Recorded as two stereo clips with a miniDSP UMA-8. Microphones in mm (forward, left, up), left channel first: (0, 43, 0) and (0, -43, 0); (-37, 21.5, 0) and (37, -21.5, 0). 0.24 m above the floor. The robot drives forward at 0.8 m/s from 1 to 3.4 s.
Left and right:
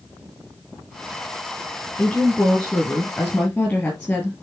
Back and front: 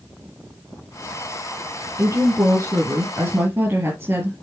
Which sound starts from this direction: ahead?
A woman speaking, at 2.0 s.